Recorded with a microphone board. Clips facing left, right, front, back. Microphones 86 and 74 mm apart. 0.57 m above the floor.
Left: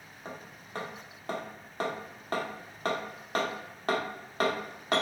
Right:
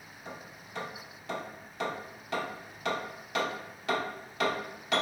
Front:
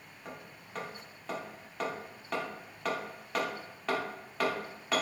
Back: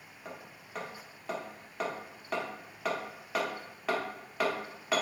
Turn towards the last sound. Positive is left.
turn(degrees=95)